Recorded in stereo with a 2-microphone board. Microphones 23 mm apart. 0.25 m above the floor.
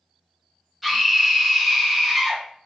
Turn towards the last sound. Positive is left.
turn(degrees=0)  # may be behind; listen again after turning